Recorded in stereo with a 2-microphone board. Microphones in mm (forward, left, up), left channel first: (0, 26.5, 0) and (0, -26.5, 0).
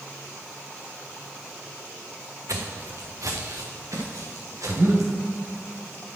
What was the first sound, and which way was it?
Footsteps, 80° right.